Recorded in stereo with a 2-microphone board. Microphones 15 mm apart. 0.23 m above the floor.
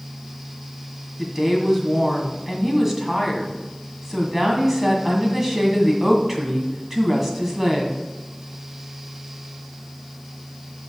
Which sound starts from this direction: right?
A woman speaking, at 1.2 s.